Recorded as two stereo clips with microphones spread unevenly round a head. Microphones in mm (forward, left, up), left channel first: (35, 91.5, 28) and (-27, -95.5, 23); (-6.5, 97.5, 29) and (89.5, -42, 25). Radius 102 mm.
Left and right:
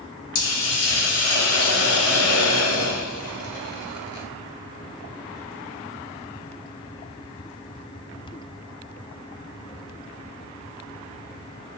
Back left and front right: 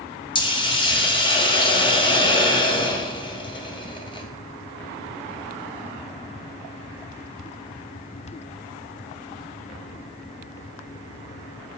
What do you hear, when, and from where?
0.3 s a hiss: 60° left, 0.7 m